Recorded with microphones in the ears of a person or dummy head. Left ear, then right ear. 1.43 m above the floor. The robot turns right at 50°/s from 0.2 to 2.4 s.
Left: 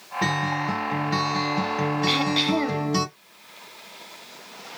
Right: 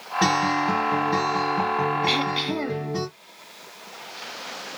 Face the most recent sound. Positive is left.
turn(degrees=10)  # may be behind; listen again after turning